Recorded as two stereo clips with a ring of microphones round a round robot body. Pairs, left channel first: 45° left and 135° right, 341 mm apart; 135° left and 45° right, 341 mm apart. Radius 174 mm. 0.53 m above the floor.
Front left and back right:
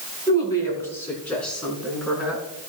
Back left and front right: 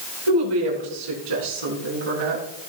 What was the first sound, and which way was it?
A woman speaking, 35° right.